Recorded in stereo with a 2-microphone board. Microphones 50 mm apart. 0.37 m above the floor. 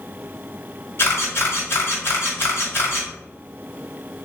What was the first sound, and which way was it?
A camera shutter, 50° left (ahead or behind).